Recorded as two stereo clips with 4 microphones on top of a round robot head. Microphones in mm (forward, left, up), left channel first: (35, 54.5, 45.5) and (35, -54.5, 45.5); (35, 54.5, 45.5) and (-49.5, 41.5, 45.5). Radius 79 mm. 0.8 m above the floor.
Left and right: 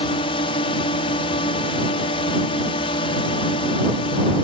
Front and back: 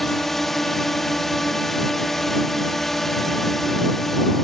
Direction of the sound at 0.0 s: 95° left.